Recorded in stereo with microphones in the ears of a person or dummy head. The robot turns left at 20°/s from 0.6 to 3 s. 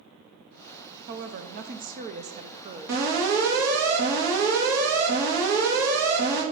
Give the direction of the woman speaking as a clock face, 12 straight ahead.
4 o'clock.